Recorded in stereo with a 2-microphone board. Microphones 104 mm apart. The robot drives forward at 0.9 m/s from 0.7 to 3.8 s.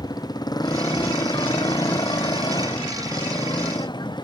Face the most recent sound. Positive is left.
turn(degrees=45)  # may be behind; listen again after turning